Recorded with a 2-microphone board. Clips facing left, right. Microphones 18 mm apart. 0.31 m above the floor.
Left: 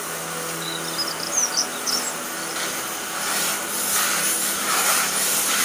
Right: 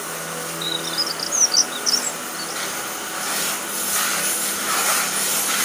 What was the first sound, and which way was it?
A bird, 65° right (ahead or behind).